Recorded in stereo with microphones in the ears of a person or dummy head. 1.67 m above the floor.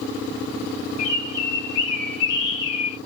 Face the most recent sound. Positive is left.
turn(degrees=25)  # may be behind; listen again after turning